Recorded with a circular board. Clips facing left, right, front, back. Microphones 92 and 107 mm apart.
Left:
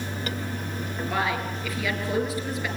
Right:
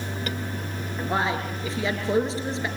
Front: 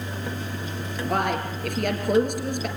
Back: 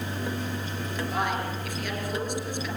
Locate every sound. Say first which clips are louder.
1.1 s a man speaking: right 2 dB, front 5 dB; 30° right, 4 m